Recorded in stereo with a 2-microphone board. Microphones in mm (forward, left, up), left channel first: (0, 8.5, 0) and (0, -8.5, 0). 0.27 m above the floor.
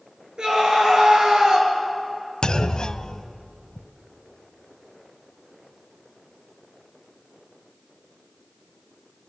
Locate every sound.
0.4 s a scream: 50° right (ahead or behind), 5.5 m
2.4 s a clunk: 55° left (ahead or behind), 0.6 m